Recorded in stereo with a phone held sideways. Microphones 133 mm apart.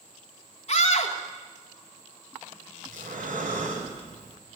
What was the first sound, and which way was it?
A scream, 50° left (ahead or behind).